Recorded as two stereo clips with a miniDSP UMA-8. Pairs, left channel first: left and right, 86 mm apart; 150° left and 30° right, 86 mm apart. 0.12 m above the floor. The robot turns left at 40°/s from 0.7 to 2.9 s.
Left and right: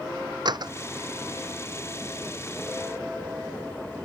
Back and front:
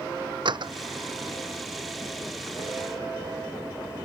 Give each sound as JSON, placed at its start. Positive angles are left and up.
{"t": 0.5, "sound": "a door slam", "azimuth_deg": -55}